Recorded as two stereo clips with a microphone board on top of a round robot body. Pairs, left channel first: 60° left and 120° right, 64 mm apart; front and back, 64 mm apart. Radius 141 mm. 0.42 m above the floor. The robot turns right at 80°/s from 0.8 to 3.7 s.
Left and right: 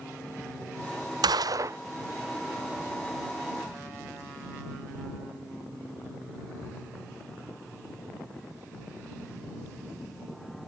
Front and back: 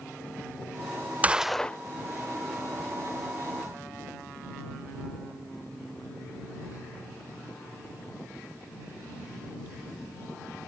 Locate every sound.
1.2 s a gunshot: 110° right; by 1.8 s 70° right